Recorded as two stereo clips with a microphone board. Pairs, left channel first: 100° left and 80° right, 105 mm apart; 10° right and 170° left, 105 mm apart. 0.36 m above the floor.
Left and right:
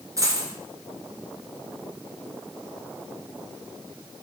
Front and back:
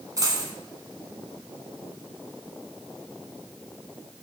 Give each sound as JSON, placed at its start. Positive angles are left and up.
{"t": 0.2, "sound": "a dropped coin", "azimuth_deg": -135, "distance_m": 1.5}